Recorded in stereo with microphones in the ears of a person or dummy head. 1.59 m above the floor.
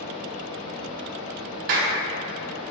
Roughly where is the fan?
Left.